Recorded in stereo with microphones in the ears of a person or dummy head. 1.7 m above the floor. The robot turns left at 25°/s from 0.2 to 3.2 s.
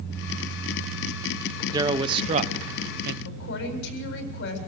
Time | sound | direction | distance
1.7 | a man speaking | 20° right | 1.2 m
3.2 | a woman speaking | 65° left (ahead or behind) | 8 m